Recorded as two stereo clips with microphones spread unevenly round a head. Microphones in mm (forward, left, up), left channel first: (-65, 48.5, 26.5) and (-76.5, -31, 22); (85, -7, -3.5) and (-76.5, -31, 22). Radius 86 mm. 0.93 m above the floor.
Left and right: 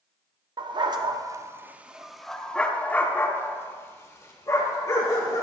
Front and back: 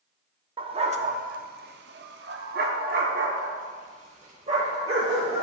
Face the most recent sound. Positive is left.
turn(degrees=130)